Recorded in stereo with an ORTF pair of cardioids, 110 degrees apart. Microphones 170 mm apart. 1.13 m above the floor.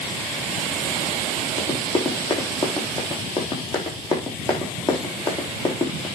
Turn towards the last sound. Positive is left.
turn(degrees=30)